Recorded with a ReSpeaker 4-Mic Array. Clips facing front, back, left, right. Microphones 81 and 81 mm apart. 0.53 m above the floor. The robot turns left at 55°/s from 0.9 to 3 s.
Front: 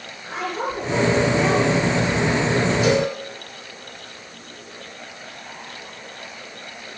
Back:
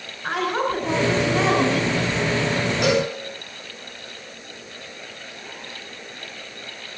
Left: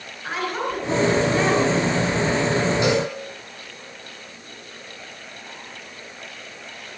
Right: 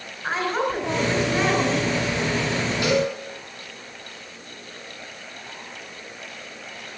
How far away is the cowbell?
About 6.5 m.